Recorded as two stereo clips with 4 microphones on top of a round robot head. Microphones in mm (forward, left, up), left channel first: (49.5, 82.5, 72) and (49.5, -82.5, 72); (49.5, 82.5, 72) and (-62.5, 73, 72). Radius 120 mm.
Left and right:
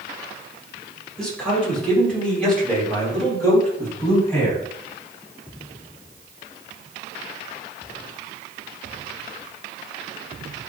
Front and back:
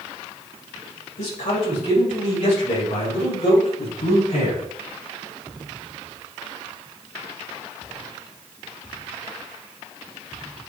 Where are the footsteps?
I don't hear footsteps.